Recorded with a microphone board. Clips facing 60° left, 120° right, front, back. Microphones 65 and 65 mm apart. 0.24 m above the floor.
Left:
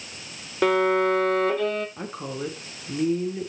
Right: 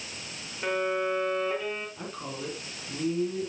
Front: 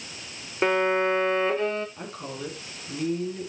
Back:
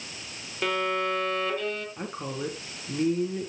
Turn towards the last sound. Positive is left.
turn(degrees=110)